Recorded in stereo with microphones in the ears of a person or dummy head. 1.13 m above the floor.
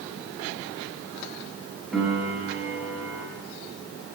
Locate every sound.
1.9 s a piano: centre (ahead or behind), 1.2 m